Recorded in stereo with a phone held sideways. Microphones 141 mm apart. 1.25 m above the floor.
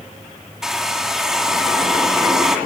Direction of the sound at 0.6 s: 5° right (ahead or behind).